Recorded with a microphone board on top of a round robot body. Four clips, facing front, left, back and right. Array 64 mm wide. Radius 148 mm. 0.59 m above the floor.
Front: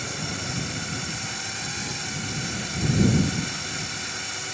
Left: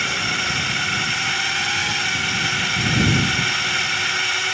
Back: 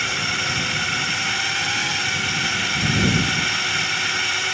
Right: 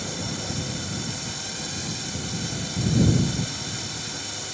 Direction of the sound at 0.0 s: 125° left.